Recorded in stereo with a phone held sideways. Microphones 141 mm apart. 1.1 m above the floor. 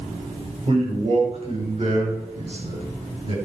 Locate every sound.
0.7 s a man speaking: 45° right (ahead or behind), 5.5 m; by 3.3 s 50° right (ahead or behind), 9 m